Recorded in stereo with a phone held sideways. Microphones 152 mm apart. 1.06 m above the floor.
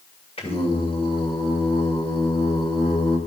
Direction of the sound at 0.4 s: 40° left (ahead or behind).